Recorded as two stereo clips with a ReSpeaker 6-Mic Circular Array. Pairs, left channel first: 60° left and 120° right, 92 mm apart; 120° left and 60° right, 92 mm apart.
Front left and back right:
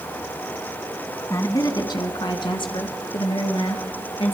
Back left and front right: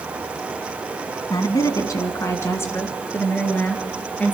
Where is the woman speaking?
100° left, 1.8 m; by 4.3 s 45° left, 4 m.